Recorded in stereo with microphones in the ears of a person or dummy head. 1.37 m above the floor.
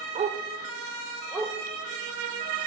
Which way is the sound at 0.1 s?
35° right (ahead or behind).